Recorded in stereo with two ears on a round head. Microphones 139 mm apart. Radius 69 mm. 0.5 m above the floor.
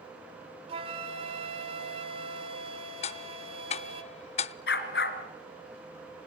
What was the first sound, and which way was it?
A flute, 40° right (ahead or behind).